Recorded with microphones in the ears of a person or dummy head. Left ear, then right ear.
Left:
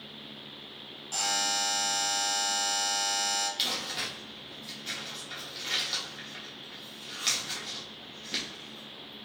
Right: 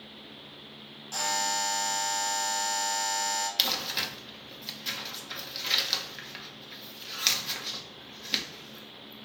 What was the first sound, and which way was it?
A buzzer, centre (ahead or behind).